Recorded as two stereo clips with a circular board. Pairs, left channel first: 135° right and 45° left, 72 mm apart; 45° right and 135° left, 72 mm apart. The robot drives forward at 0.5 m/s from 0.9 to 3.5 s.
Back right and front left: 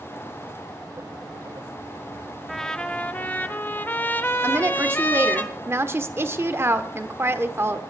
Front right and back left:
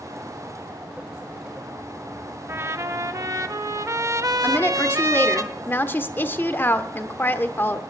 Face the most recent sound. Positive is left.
turn(degrees=5)